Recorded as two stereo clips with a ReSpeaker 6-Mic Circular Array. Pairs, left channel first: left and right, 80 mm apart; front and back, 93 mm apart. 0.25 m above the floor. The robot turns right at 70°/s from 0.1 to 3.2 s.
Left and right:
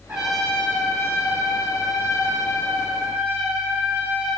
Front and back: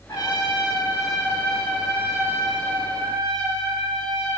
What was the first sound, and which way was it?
A trumpet, 25° right.